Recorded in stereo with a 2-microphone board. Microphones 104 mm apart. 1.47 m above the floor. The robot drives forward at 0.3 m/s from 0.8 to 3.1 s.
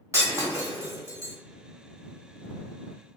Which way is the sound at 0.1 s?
30° right (ahead or behind).